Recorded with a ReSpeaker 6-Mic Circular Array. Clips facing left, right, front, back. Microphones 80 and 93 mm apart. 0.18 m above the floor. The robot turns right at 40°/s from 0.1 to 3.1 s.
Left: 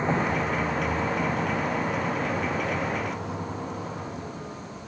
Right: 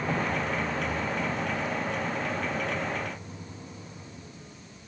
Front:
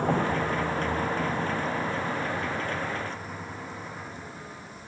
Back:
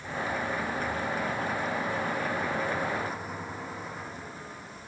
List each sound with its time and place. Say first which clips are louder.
0.0 s a vehicle: left 4 dB, front 7 dB; 25° left; by 4.9 s 90° left